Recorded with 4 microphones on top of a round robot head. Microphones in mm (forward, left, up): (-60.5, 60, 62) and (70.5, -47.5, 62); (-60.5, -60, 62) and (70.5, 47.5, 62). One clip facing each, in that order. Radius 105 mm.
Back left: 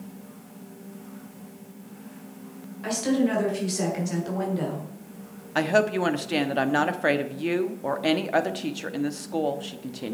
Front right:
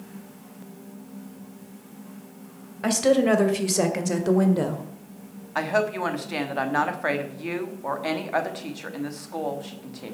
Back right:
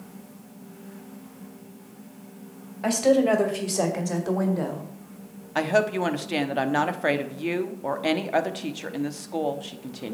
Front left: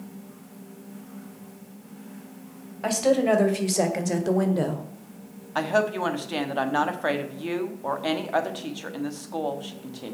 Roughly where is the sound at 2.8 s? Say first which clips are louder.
Front right 4 dB, back right 1 dB; ahead right.